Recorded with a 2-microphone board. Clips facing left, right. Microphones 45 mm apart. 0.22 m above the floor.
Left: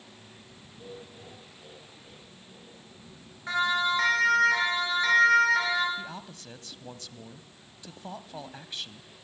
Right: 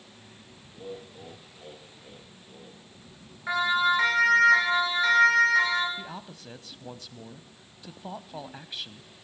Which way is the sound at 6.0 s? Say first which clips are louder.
Even; 5° right (ahead or behind).